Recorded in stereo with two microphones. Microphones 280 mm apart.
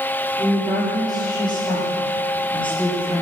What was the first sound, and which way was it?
A woman speaking, 15° left (ahead or behind).